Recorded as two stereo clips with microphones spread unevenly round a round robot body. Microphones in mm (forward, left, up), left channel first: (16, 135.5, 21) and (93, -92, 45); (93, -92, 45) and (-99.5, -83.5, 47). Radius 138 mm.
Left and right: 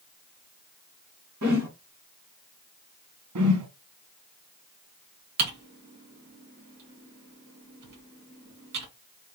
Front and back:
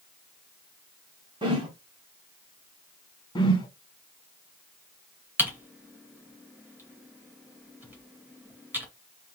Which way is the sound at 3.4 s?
70° right.